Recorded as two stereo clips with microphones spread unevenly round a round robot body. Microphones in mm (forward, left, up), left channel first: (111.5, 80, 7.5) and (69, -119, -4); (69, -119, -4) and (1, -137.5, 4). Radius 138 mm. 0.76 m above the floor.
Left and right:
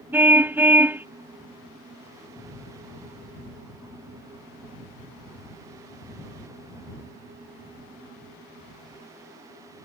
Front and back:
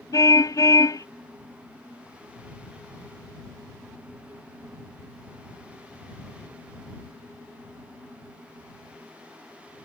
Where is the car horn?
20° right.